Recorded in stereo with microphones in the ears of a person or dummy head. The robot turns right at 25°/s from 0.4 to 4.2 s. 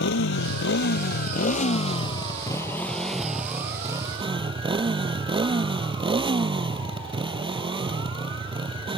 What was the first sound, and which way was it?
A motorcycle, 110° left.